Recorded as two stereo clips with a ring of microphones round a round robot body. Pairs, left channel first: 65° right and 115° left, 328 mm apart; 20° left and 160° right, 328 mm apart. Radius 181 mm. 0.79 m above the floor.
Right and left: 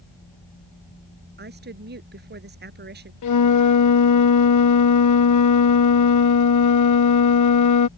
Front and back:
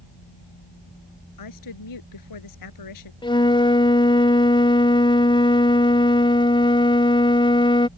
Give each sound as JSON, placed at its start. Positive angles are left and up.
{"t": 1.4, "sound": "a woman speaking", "azimuth_deg": 50}
{"t": 3.2, "sound": "a flute", "azimuth_deg": -50}